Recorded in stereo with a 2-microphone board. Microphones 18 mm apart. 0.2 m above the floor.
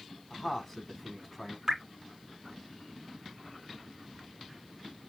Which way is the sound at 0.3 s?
20° left (ahead or behind).